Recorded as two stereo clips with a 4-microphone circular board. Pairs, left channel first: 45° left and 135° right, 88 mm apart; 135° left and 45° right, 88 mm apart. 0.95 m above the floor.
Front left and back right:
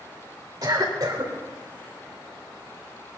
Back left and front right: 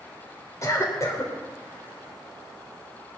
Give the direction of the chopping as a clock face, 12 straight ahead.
I don't hear chopping.